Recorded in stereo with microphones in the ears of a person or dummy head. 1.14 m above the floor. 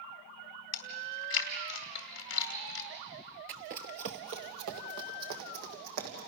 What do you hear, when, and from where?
0.7 s chewing: 60° left (ahead or behind), 2.5 m
3.5 s running footsteps: 40° right (ahead or behind), 1.4 m; by 6.3 s 50° right (ahead or behind), 4 m